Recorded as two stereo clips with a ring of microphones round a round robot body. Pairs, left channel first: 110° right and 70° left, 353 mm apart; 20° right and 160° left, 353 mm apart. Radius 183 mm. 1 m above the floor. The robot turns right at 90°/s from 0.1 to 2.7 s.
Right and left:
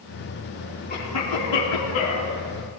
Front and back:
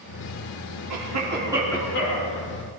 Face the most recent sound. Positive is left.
turn(degrees=-15)